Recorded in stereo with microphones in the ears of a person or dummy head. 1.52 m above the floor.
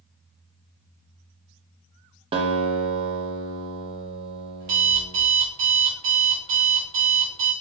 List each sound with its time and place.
2.3 s a guitar: 30° right (ahead or behind), 0.5 m
4.6 s an alarm clock: 45° right (ahead or behind), 1.0 m